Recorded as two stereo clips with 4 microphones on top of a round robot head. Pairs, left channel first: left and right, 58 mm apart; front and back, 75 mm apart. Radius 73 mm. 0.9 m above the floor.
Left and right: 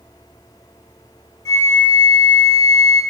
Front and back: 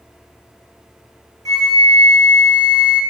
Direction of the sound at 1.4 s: 145° left.